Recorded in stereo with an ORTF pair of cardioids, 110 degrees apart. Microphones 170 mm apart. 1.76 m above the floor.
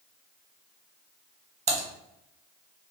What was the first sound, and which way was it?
Typing on a keyboard, 40° right.